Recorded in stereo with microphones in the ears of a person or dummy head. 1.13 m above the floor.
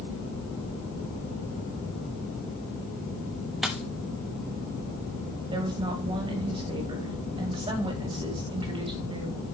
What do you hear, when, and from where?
3.6 s a dropped coin: 5° right (ahead or behind), 0.6 m
5.5 s a woman speaking: 30° right (ahead or behind), 1.8 m